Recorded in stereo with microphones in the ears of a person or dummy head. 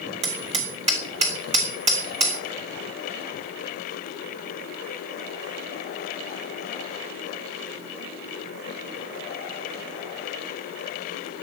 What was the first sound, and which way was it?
Hammering, 25° right (ahead or behind).